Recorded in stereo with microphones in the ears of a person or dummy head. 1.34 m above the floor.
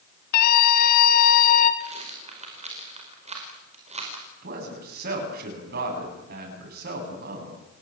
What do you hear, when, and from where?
0.3 s a scream: 60° left (ahead or behind), 2.5 m; by 1.7 s 45° left (ahead or behind), 3.5 m
1.8 s a rattle: 30° right (ahead or behind), 4.5 m
4.4 s a man speaking: 60° right (ahead or behind), 9.5 m